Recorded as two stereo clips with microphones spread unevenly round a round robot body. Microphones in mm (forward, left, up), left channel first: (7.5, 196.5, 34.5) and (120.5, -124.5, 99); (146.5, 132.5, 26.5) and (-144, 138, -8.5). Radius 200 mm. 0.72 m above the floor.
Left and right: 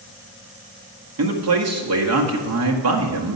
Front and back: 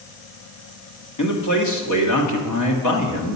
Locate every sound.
1.2 s a man speaking: 25° right, 1.5 m